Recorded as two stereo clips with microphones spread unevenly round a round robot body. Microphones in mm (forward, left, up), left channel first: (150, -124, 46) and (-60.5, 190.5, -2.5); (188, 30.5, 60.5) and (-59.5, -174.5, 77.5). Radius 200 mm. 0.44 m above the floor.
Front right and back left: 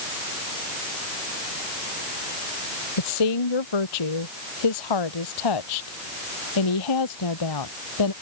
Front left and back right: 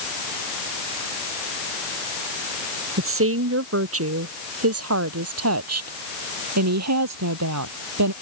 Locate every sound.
3.0 s a woman speaking: 90° right; by 8.1 s 105° right